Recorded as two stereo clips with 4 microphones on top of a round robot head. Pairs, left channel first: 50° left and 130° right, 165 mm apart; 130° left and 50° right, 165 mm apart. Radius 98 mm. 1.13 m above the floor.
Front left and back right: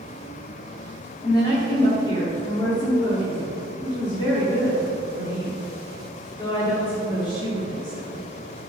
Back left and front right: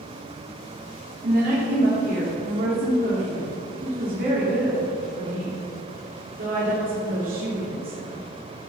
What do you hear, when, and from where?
1.2 s a woman speaking: 15° right, 3 m